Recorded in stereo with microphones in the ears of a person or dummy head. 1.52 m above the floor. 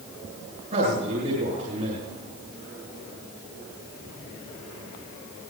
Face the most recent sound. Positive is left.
turn(degrees=-40)  # may be behind; listen again after turning